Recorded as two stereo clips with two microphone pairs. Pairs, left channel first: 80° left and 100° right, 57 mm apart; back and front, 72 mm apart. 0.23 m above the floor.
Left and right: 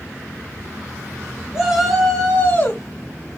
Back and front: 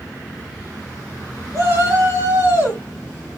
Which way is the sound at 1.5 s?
25° right.